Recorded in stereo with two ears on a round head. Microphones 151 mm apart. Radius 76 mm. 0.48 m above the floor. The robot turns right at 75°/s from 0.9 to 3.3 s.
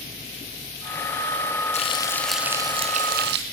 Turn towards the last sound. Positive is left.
turn(degrees=-105)